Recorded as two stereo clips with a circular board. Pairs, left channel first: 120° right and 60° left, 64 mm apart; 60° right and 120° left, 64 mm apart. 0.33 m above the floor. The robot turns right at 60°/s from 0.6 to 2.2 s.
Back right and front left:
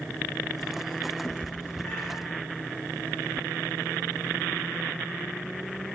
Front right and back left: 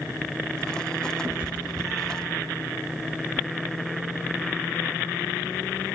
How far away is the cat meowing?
About 0.8 m.